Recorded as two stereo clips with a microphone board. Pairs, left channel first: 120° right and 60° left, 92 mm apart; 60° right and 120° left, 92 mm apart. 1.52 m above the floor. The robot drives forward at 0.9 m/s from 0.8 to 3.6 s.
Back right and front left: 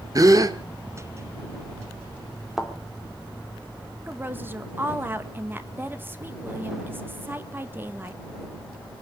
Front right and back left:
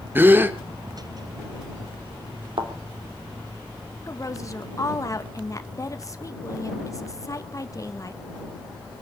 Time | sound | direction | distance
0.1 | a gasp | 65° left | 1.4 m
2.6 | a thud | 145° left | 2.5 m
4.1 | a woman speaking | 5° right | 1.7 m